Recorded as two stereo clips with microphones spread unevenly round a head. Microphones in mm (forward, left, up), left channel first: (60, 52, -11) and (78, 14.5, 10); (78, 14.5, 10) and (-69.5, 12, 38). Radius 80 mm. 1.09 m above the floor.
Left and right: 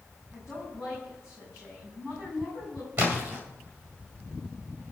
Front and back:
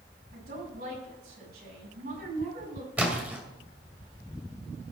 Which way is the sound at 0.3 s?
150° right.